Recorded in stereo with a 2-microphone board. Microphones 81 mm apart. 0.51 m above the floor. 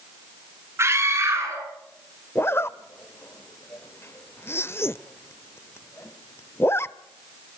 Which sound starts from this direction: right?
A scream, at 0.8 s.